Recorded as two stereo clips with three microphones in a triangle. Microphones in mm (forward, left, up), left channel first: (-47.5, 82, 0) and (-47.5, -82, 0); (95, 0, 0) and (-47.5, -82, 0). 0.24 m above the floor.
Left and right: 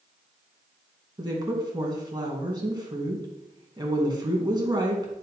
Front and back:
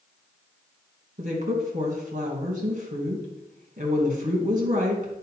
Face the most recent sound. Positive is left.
turn(degrees=-150)